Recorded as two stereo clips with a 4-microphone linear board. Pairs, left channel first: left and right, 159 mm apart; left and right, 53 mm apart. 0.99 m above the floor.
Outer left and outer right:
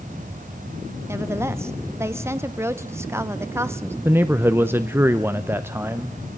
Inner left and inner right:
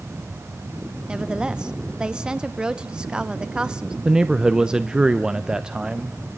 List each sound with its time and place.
1.1 s a woman speaking: 15° right (ahead or behind), 0.7 m
4.0 s a man speaking: 15° right (ahead or behind), 0.7 m